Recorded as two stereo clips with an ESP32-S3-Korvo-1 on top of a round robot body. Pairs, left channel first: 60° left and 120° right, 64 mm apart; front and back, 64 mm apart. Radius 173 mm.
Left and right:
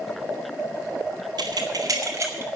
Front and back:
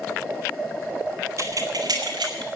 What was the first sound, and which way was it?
Keys jangling, 130° right.